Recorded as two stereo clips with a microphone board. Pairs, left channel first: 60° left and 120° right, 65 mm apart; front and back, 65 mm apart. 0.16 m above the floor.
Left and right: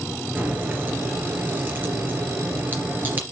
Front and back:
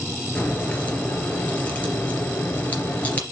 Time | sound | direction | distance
0.3 | a crack | 65° right | 3 m